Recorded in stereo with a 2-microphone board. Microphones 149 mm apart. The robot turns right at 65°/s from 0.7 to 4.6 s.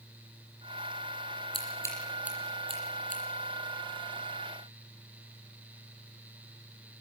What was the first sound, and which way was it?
Scissors, 40° left (ahead or behind).